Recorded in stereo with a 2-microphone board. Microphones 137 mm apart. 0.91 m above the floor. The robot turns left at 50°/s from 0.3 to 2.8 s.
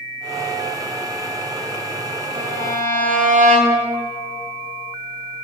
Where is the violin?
80° right, 3 m.